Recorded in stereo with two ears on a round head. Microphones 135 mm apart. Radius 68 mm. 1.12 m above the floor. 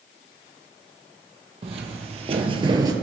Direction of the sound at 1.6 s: 40° right (ahead or behind).